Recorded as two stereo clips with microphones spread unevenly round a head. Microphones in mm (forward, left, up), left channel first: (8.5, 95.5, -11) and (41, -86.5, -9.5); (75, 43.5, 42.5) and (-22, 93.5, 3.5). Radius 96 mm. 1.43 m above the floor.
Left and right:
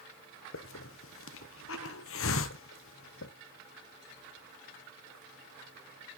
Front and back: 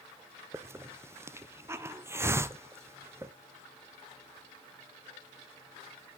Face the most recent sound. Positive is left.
turn(degrees=90)